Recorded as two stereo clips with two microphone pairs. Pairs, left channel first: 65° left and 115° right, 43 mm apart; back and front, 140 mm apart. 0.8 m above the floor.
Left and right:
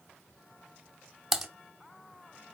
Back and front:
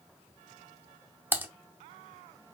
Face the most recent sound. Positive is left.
turn(degrees=-45)